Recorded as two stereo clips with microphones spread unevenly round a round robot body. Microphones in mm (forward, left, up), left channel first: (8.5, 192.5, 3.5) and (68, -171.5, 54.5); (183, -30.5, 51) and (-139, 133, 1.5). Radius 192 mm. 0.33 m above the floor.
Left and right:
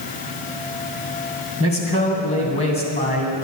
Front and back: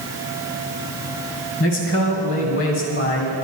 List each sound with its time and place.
1.6 s a man speaking: 30° left, 2.5 m